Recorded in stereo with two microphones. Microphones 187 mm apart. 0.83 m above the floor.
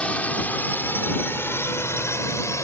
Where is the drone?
5° left (ahead or behind); by 2.6 s 15° left (ahead or behind).